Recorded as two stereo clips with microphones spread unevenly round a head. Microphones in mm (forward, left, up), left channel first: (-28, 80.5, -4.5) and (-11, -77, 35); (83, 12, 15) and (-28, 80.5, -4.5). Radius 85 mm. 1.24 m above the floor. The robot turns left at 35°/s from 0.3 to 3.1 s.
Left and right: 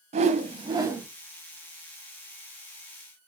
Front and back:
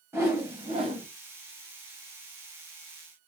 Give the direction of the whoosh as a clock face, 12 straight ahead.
5 o'clock.